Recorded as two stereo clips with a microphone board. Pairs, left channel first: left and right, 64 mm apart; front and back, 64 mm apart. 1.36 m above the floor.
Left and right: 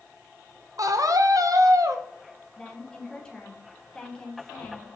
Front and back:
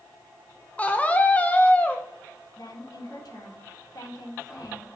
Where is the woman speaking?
10° left, 1.3 m.